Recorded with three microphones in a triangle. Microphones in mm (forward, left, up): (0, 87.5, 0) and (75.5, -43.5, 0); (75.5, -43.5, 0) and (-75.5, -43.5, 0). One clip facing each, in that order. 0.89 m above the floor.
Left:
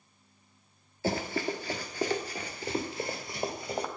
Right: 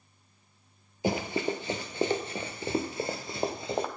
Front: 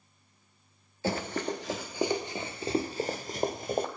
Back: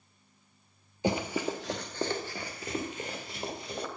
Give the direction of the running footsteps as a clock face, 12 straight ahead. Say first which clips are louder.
Right 2 dB, back 1 dB; 4 o'clock.